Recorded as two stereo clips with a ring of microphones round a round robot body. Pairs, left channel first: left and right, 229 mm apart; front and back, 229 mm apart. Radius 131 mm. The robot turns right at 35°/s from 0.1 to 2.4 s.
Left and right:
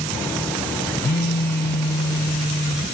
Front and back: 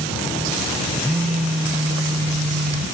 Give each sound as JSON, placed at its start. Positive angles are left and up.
{"t": 1.0, "sound": "a phone buzzing", "azimuth_deg": 80, "distance_m": 0.7}